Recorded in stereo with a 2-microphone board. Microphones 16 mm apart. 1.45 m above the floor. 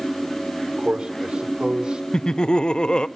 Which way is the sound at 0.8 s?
70° right (ahead or behind).